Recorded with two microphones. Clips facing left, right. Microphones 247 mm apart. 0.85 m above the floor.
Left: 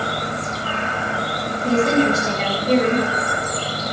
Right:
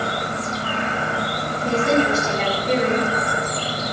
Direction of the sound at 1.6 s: 40° left (ahead or behind).